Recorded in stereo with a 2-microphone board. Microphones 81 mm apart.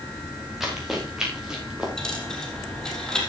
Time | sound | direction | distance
0.6 | running footsteps | 5° right (ahead or behind) | 5 m
2.0 | a dropped coin | 10° left (ahead or behind) | 3 m